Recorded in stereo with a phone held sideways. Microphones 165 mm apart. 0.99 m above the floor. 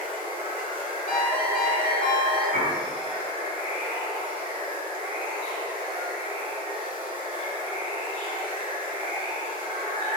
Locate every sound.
0.0 s running water: 35° right (ahead or behind), 0.8 m
1.1 s a ringtone: 55° left (ahead or behind), 1.5 m
2.5 s a piano: 85° left, 0.9 m